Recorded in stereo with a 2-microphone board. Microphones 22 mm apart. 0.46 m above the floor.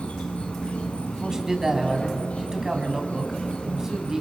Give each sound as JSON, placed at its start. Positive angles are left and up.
{"t": 0.0, "sound": "an insect", "side_deg": 80, "distance_m": 2.0}
{"t": 1.1, "sound": "a man speaking", "side_deg": -20, "distance_m": 3.0}